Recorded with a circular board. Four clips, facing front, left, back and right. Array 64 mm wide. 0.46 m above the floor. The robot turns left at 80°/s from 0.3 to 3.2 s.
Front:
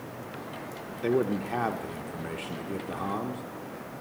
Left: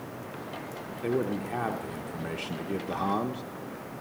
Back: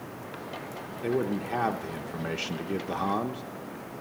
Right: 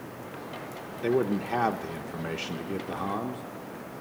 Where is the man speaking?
45° right, 0.7 m; by 3.4 s 140° left, 0.7 m.